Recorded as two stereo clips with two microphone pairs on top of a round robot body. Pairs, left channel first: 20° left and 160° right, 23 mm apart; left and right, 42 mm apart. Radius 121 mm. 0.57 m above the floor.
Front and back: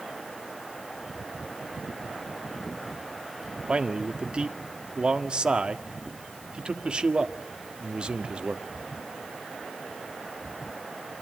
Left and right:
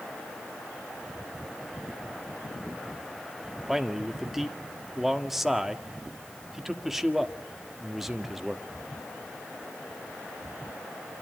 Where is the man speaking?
170° right, 1.9 m.